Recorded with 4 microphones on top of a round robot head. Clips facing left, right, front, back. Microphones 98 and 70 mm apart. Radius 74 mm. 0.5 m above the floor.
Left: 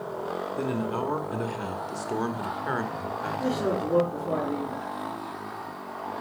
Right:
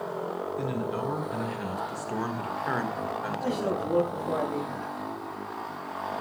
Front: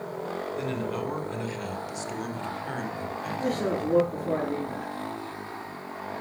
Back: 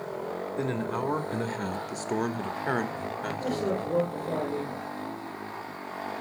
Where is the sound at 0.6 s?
130° left, 2.5 m; by 3.9 s 170° right, 2 m.